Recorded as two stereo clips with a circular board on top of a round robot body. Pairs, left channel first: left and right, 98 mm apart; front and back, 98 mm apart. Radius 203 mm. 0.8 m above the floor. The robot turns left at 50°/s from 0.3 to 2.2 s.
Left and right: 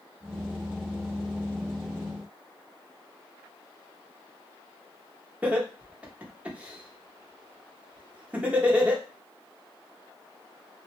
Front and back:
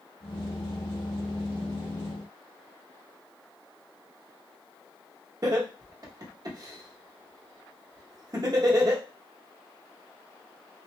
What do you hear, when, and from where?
5.4 s laughter: 160° right, 1.2 m